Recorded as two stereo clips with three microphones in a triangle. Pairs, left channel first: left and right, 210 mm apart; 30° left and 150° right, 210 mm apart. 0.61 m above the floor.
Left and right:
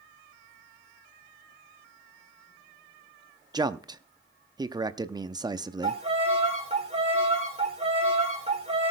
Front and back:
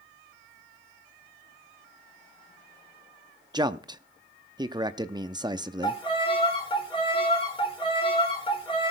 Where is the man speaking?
125° right, 0.5 m.